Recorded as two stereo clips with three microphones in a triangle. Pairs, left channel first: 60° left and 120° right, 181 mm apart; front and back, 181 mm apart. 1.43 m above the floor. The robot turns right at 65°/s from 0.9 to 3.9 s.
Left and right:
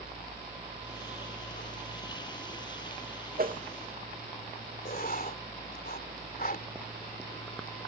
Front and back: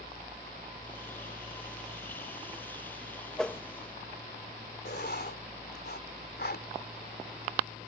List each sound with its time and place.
3.4 s a whoosh: 90° right; by 3.6 s 75° right
4.8 s writing: 25° left